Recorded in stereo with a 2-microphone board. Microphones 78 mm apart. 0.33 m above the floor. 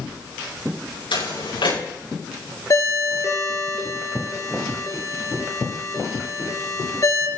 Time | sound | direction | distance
1.1 | footsteps | 90° left | 9 m
2.7 | a ringtone | 40° left (ahead or behind) | 3 m